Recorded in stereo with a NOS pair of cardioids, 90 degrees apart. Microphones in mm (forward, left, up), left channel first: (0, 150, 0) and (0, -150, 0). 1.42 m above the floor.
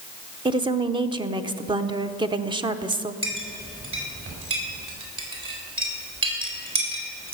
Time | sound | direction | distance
0.5 | a woman speaking | 15° right | 0.8 m
3.2 | a clink | 45° right | 4 m